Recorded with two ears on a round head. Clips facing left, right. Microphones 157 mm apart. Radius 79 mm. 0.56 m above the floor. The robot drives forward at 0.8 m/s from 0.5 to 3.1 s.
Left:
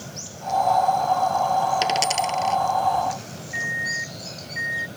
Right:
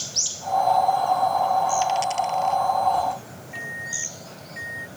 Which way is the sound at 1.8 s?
90° left.